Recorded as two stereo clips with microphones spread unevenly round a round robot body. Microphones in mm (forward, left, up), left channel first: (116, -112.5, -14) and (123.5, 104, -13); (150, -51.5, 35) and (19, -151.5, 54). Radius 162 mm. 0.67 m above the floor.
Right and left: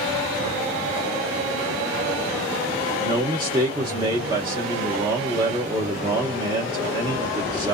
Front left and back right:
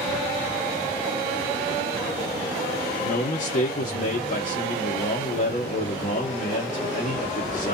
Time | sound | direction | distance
3.0 | a man speaking | 20° left | 0.8 m